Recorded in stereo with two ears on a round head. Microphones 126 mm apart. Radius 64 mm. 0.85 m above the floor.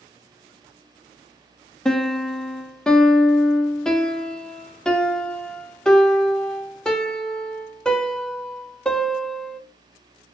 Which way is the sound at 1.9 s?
5° left (ahead or behind).